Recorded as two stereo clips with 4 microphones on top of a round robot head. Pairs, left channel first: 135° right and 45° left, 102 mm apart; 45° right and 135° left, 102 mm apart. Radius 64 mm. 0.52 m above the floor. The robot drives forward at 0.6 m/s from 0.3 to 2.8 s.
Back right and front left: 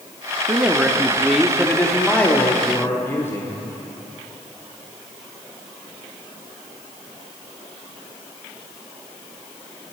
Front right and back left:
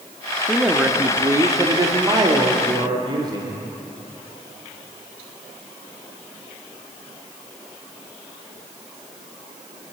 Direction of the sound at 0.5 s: 60° left.